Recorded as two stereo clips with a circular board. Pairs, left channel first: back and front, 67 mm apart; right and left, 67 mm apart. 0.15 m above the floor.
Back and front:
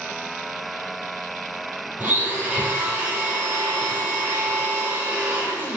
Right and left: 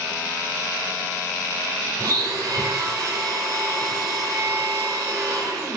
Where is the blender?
65° left, 5.5 m.